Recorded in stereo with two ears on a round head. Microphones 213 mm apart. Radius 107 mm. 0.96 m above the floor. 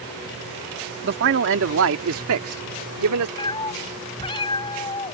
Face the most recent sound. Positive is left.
turn(degrees=20)  # may be behind; listen again after turning